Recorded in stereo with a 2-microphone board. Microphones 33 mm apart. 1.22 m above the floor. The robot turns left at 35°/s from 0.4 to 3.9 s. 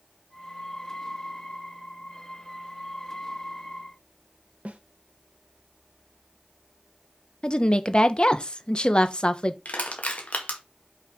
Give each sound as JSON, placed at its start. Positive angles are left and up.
{"t": 4.7, "sound": "a snare drum", "side_deg": -50, "distance_m": 0.9}
{"t": 7.4, "sound": "a woman speaking", "side_deg": 30, "distance_m": 0.8}
{"t": 9.7, "sound": "crushing", "side_deg": 45, "distance_m": 1.6}